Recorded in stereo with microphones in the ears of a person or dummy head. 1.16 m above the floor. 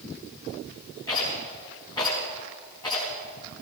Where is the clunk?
No clunk in this recording.